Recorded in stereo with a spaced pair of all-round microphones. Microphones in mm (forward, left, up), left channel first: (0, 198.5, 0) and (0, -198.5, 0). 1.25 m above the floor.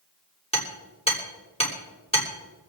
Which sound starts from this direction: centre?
Hammering, at 0.5 s.